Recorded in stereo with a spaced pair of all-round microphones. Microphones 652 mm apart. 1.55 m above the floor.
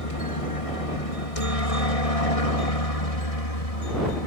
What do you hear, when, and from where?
0.0 s a helicopter: 55° left (ahead or behind); by 4.3 s 65° left (ahead or behind)